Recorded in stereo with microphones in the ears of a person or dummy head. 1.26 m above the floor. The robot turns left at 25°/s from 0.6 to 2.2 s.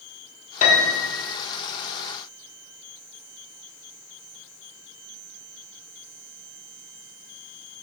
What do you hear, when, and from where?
0.6 s a piano: 35° left (ahead or behind), 0.5 m; by 1.3 s 30° left (ahead or behind), 0.5 m